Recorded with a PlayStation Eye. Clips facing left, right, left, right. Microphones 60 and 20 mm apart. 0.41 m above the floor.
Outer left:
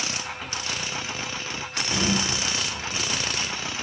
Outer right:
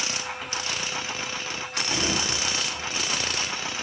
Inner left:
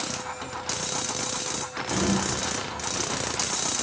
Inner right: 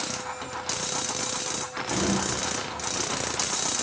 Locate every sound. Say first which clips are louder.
1.9 s a sliding door: outer left 3 dB, inner left 1 dB; 40° left (ahead or behind), 5.5 m